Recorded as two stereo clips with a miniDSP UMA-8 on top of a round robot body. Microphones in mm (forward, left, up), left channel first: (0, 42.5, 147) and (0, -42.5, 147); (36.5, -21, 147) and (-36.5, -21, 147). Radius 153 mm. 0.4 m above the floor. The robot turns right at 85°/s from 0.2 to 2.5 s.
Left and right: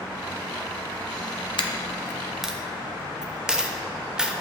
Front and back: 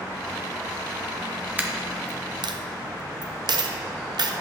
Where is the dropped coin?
110° left, 0.8 m; by 4.3 s 170° right, 0.8 m.